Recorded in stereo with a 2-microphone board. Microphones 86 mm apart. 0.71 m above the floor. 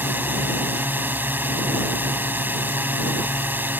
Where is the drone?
20° right (ahead or behind).